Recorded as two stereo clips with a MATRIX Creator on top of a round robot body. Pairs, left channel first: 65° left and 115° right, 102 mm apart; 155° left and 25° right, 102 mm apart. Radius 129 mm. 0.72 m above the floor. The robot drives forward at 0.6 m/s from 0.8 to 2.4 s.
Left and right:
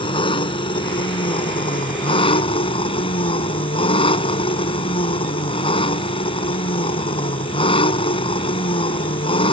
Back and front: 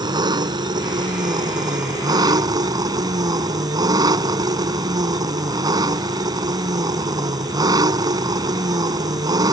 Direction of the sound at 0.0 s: 25° left.